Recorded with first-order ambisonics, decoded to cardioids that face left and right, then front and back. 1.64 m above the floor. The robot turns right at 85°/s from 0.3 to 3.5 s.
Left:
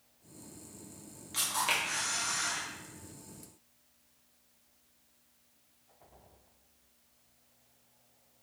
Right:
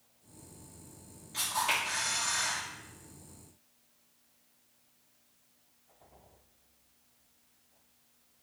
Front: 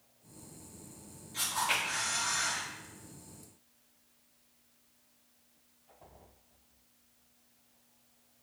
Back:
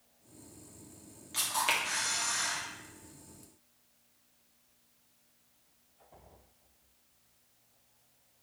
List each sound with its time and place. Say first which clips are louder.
1.3 s a camera shutter: even, back 1 dB; 135° left, 1.4 m; by 2.6 s 120° right, 1.4 m